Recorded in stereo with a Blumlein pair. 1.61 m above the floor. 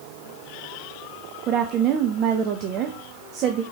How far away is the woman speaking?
About 0.5 m.